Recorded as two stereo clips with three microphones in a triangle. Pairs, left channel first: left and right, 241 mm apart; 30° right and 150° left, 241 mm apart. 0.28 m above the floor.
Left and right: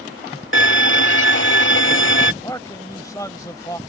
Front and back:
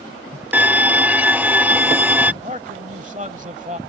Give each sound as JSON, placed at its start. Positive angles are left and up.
{"t": 0.5, "sound": "a violin", "azimuth_deg": 70}
{"t": 2.4, "sound": "a man speaking", "azimuth_deg": 150}